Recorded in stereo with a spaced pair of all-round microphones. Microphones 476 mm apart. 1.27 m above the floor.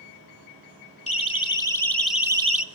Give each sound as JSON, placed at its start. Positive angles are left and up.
{"t": 1.1, "sound": "a siren", "side_deg": 15, "distance_m": 3.0}